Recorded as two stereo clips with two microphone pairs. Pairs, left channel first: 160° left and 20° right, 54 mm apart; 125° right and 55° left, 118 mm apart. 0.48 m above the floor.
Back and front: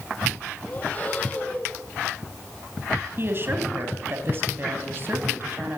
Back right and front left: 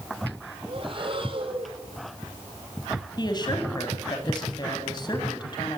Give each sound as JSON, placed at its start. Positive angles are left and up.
{"t": 0.7, "sound": "breathing", "azimuth_deg": 95, "distance_m": 1.9}
{"t": 3.2, "sound": "a woman speaking", "azimuth_deg": -70, "distance_m": 3.0}